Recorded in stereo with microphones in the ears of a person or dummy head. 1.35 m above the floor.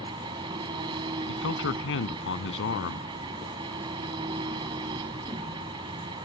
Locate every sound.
0.0 s an engine running: 30° right (ahead or behind)
1.3 s a man speaking: 75° left (ahead or behind)